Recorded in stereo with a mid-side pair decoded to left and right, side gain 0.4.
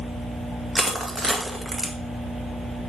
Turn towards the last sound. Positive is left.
turn(degrees=-15)